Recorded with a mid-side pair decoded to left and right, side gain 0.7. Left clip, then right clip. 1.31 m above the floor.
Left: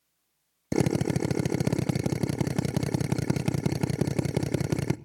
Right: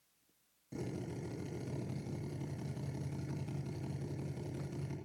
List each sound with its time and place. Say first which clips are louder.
0.7 s a drill: left 17 dB; 65° left, 0.6 m